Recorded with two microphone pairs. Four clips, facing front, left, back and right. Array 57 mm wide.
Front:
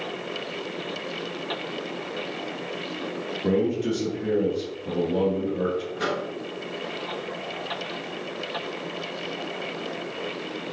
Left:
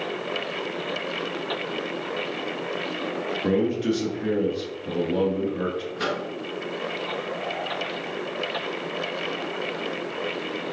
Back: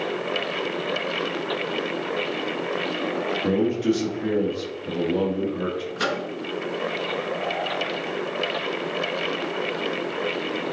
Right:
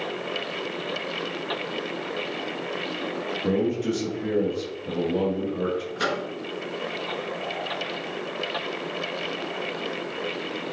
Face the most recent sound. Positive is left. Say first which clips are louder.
# even, back 2 dB
turn(degrees=-165)